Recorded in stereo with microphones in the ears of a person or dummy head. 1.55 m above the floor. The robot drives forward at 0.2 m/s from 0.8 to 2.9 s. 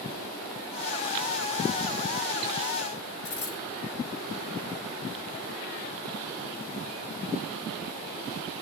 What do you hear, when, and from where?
3.2 s a dropped coin: 50° left (ahead or behind), 1.8 m